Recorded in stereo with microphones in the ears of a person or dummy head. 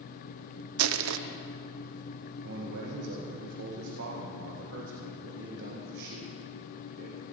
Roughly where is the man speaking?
Right.